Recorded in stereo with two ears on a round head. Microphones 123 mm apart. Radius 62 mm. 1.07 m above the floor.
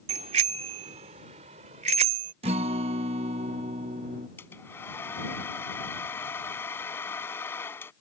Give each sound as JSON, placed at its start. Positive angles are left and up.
{"t": 0.1, "sound": "a bicycle bell", "side_deg": -50}
{"t": 2.4, "sound": "a guitar", "side_deg": -45}
{"t": 4.4, "sound": "a hair dryer", "side_deg": 15}